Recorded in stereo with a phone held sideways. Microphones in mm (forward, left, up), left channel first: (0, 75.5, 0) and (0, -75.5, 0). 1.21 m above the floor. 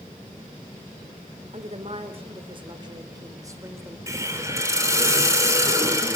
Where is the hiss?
20° right (ahead or behind), 4.5 m.